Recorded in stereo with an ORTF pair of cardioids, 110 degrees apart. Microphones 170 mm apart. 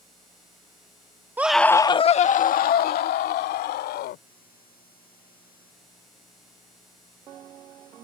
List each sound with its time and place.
1.4 s a scream: 10° right; by 4.2 s 80° left